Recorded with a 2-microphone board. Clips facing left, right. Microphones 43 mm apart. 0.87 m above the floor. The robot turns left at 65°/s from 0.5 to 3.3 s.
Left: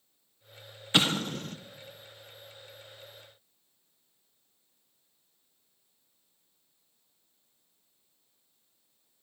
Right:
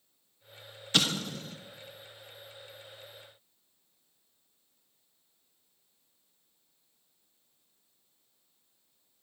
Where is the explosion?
25° left (ahead or behind), 0.7 m; by 1.6 s 65° left (ahead or behind), 0.7 m.